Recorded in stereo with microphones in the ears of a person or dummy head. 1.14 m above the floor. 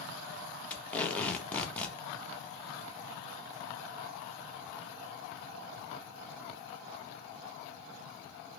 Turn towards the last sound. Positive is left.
turn(degrees=15)  # may be behind; listen again after turning